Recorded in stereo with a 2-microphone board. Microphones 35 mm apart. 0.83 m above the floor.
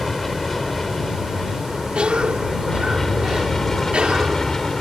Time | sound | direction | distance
0.0 | an aircraft | 5° left (ahead or behind) | ?
1.9 | a cough | 35° right (ahead or behind) | ?